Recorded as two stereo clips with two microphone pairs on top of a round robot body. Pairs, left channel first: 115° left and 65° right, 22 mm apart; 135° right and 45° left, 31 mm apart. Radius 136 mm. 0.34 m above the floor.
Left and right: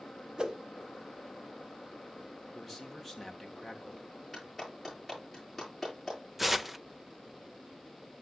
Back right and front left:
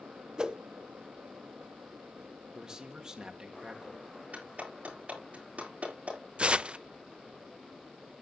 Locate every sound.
0.4 s a whoosh: 10° right, 1.1 m
2.5 s a man speaking: 25° left, 1.7 m
4.3 s a clap: 20° left, 9.5 m
6.4 s tearing paper: 15° left, 0.7 m